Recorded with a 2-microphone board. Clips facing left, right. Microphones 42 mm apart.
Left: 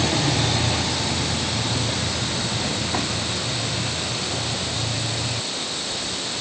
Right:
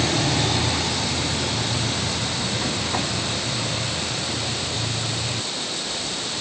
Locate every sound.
Only background noise.